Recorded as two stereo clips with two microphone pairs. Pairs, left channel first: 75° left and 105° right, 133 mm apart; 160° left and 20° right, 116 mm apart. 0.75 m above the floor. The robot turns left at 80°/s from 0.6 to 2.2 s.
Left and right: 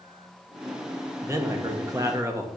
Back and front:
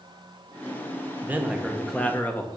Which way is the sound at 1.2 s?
65° right.